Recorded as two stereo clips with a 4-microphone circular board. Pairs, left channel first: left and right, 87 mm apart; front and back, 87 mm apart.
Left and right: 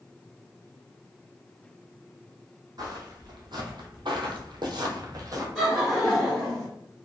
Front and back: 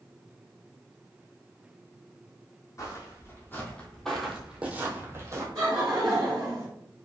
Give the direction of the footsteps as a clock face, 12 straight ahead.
2 o'clock.